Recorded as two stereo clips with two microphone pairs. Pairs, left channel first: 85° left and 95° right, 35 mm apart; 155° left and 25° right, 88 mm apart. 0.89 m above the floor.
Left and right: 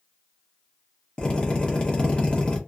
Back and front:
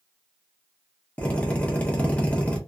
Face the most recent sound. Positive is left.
turn(degrees=100)